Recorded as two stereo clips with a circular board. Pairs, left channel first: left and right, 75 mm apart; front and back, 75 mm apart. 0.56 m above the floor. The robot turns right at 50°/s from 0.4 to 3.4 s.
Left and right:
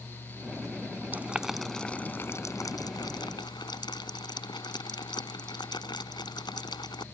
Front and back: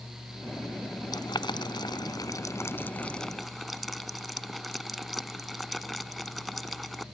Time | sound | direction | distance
1.1 | boiling | 25° right | ?